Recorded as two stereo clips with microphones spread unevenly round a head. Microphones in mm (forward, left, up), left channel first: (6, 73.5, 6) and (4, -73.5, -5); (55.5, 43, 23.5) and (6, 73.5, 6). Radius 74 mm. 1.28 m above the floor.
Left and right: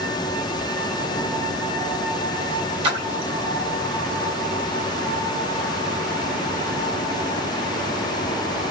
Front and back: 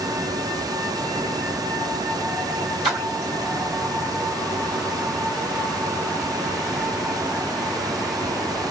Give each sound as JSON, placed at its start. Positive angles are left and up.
{"t": 2.8, "sound": "a splash", "azimuth_deg": -150, "distance_m": 2.0}